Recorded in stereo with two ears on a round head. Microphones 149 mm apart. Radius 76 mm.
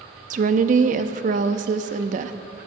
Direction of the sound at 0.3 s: 50° right (ahead or behind).